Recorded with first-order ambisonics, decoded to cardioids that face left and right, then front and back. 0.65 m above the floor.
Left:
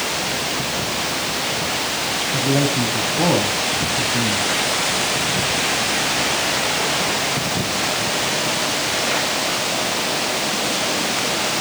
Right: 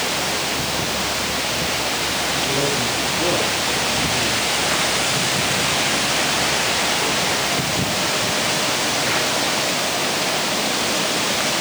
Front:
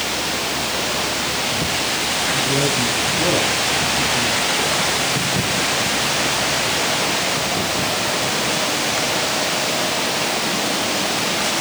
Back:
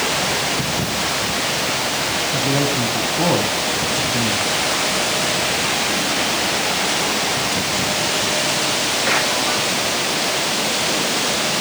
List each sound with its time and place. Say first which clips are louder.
2.3 s a man speaking: left 1 dB, even; 120° left, 4 m